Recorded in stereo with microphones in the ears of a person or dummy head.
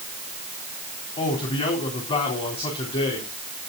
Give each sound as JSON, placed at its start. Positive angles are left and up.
{"t": 1.2, "sound": "a man speaking", "side_deg": 35, "distance_m": 4.0}